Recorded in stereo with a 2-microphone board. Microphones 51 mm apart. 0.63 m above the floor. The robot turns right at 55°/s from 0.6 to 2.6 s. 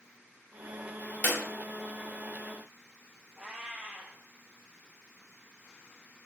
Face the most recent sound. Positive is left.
turn(degrees=-15)  # may be behind; listen again after turning